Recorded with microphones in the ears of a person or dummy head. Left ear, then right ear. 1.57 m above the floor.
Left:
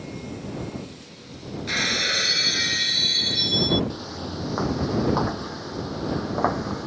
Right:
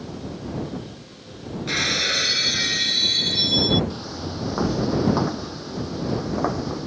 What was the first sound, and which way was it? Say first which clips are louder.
Breaking glass: right 1 dB; 5° left (ahead or behind).